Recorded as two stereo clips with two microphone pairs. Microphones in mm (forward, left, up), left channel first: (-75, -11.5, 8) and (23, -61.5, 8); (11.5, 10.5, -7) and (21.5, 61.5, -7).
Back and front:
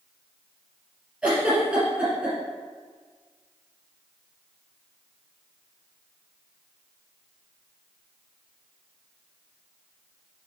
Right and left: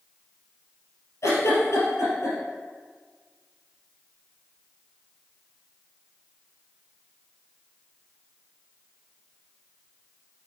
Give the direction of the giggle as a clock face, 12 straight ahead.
4 o'clock.